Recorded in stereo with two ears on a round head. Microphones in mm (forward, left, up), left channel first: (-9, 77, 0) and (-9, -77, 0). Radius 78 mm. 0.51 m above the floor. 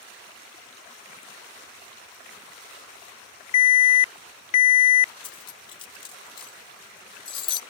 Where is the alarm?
40° left (ahead or behind).